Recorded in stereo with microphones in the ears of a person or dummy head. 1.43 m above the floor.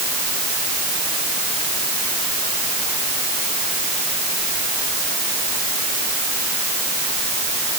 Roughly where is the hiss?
I don't hear a hiss.